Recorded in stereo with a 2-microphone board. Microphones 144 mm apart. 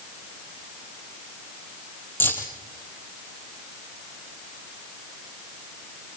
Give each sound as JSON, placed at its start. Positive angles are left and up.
{"t": 2.2, "sound": "keys jangling", "side_deg": 15, "distance_m": 2.5}